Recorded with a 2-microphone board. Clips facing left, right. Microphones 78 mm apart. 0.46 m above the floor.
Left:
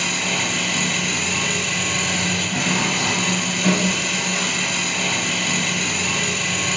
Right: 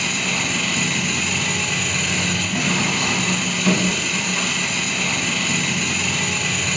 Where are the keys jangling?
I don't hear keys jangling.